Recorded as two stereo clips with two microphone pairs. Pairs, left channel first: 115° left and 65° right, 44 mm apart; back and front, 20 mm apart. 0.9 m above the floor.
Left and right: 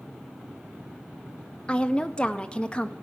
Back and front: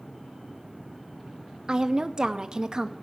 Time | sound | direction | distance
1.7 | a woman speaking | 55° left | 0.7 m